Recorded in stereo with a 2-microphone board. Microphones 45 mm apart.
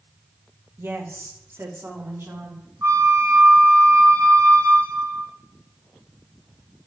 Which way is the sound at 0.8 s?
55° right (ahead or behind).